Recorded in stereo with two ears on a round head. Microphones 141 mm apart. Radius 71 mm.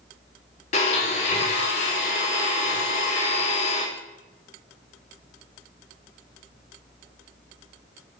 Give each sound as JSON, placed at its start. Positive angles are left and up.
{"t": 0.7, "sound": "a blender", "side_deg": 45, "distance_m": 2.5}